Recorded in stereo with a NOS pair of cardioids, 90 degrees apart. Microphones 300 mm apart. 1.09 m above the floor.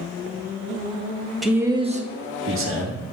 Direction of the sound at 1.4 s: Straight ahead.